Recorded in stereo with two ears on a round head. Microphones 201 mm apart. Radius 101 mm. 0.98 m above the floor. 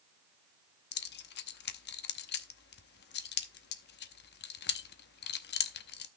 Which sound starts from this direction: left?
Keys jangling, at 0.9 s.